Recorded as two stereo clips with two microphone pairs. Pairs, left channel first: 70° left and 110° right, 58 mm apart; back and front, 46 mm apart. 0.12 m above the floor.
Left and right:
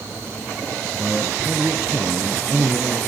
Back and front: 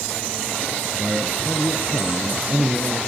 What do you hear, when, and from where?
0.9 s a man speaking: 25° right, 1.4 m; by 3.0 s 60° right, 2.5 m